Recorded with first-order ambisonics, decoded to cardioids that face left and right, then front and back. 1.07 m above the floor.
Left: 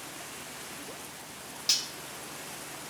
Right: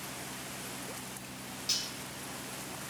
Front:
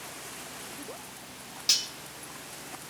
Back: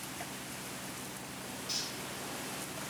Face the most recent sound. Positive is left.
turn(degrees=25)